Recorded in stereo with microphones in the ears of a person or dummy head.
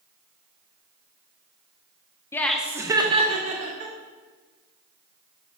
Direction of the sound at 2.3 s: 15° left (ahead or behind).